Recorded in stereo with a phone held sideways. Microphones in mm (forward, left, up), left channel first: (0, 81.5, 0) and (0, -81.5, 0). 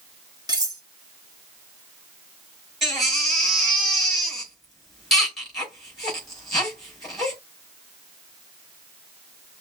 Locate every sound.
0.5 s cutlery clinking: 25° right (ahead or behind), 1.2 m
2.8 s a baby crying: centre (ahead or behind), 4 m